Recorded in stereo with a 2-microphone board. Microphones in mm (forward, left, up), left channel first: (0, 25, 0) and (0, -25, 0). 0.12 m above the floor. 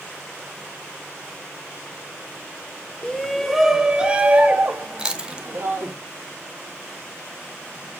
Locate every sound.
3.0 s a shout: 15° left (ahead or behind), 1.3 m; by 5.9 s 50° right (ahead or behind), 2.5 m
5.0 s chewing: 20° right (ahead or behind), 1.2 m